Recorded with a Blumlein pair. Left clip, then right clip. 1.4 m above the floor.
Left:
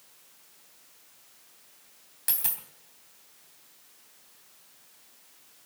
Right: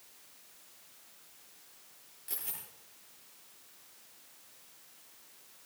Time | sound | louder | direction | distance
2.3 | a dropped coin | left 9 dB | 40° left | 3 m